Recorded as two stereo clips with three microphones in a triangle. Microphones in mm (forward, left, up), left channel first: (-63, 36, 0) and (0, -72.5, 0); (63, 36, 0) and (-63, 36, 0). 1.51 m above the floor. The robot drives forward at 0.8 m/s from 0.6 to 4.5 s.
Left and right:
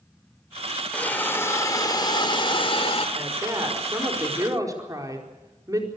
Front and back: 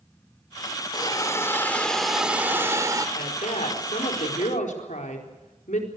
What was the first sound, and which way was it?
A hiss, 45° left.